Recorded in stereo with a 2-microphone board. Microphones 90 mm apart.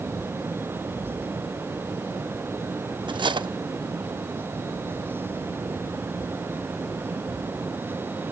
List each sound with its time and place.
3.1 s cutlery clinking: 60° right (ahead or behind), 0.5 m